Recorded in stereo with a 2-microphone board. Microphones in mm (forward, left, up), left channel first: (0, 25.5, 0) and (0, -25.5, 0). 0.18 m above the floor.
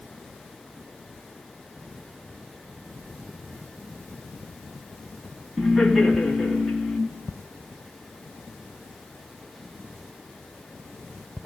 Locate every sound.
5.6 s laughter: 5° right (ahead or behind), 1.7 m